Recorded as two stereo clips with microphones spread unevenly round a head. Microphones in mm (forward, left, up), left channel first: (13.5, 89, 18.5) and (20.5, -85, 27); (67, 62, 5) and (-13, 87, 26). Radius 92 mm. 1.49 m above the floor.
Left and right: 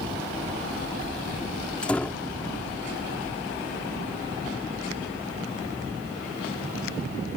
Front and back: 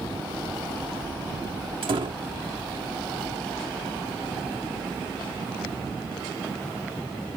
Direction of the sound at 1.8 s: 175° left.